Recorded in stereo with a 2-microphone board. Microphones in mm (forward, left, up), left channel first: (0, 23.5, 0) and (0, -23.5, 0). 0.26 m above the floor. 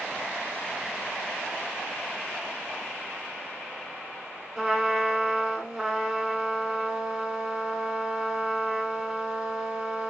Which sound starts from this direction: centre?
A trumpet, at 4.6 s.